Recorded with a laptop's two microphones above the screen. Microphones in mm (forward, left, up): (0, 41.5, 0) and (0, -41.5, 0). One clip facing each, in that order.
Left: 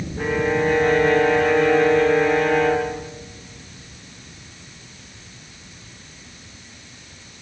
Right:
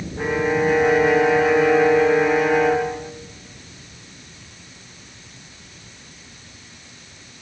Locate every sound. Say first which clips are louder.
0.2 s a violin: right 1 dB; 5° right (ahead or behind), 1.8 m